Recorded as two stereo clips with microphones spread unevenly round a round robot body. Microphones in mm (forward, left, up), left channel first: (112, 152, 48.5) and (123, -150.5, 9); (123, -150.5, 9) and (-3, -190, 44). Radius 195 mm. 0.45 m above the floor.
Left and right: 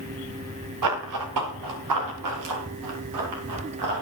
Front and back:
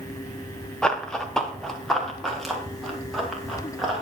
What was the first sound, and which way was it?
Running footsteps, 70° right.